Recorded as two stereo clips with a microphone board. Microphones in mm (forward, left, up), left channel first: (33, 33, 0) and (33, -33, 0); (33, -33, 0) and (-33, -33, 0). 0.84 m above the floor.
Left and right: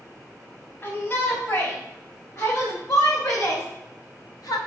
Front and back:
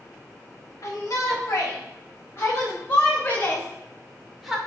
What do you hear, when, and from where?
0.8 s a shout: 35° left, 4.5 m; by 4.6 s 95° left, 2 m